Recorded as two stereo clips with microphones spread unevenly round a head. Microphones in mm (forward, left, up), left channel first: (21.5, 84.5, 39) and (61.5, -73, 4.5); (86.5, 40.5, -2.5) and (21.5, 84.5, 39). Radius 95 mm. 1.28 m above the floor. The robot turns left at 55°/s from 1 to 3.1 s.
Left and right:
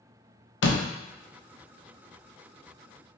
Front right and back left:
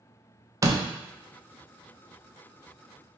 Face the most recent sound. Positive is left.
turn(degrees=-20)